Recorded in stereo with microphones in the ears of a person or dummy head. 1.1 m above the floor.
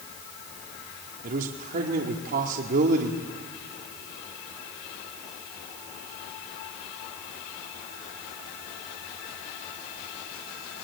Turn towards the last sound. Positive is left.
turn(degrees=-50)  # may be behind; listen again after turning